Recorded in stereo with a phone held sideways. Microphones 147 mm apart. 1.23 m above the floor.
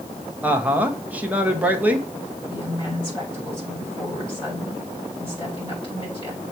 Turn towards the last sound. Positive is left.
turn(degrees=35)  # may be behind; listen again after turning